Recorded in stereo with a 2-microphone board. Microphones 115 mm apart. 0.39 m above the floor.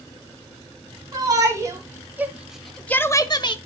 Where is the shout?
35° right (ahead or behind), 3 m; by 3.5 s 45° left (ahead or behind), 1.3 m.